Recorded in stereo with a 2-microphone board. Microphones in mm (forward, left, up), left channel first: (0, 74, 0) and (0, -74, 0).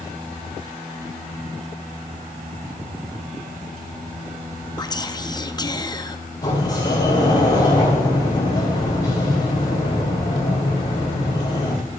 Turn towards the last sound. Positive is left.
turn(degrees=30)  # may be behind; listen again after turning